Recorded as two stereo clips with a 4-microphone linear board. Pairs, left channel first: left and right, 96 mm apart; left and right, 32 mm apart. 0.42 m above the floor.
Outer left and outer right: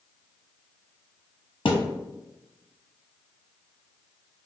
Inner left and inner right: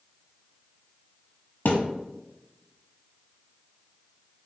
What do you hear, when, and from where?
1.6 s a thud: 70° left (ahead or behind), 1.0 m